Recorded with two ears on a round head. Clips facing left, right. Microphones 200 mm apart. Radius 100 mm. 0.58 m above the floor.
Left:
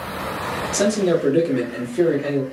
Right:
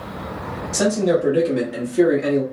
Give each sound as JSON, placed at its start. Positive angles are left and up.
{"t": 0.7, "sound": "a man speaking", "side_deg": 30, "distance_m": 1.1}